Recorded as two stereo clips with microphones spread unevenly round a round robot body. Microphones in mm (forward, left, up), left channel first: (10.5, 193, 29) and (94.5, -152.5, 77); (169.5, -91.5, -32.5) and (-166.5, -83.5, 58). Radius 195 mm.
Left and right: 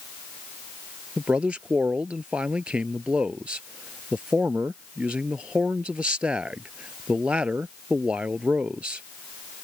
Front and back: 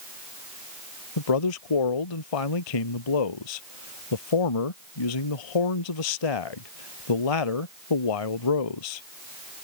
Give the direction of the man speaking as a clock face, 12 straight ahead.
12 o'clock.